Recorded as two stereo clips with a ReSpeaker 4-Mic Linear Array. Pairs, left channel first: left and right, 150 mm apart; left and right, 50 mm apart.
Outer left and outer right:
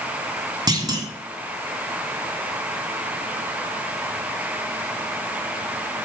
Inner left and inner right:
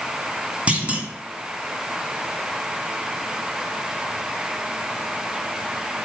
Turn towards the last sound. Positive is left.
turn(degrees=-25)  # may be behind; listen again after turning